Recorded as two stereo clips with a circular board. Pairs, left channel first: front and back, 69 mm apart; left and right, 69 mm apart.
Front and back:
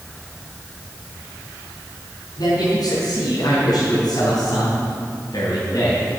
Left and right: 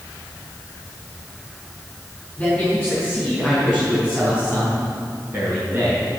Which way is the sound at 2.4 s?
20° left.